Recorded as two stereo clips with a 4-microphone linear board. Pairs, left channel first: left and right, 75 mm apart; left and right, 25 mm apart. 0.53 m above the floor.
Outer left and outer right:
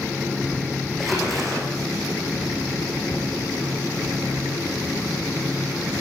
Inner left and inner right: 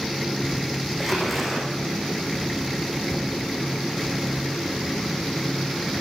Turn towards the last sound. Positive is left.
turn(degrees=0)  # may be behind; listen again after turning